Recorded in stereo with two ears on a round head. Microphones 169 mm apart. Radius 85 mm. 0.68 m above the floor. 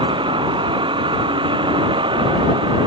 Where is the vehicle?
25° right (ahead or behind).